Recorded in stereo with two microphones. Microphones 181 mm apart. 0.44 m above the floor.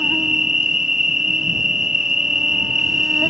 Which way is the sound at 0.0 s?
5° right (ahead or behind).